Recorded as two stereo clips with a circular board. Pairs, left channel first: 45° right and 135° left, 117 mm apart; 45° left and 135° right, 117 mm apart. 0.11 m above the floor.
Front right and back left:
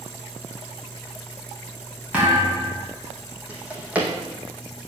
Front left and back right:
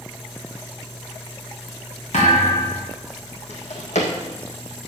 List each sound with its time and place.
2.1 s a thud: 60° left, 4.5 m
3.5 s a drawer: 55° left, 2 m